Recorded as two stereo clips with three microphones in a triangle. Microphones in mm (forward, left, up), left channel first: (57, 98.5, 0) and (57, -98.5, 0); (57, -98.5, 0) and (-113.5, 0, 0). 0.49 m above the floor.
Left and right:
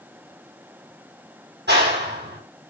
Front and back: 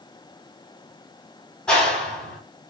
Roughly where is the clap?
Behind right.